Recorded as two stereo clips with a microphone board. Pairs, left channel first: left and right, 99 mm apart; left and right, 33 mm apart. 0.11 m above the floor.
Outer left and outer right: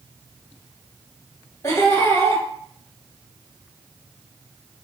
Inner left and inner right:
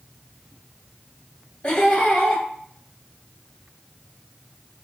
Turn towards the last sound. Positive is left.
turn(degrees=35)  # may be behind; listen again after turning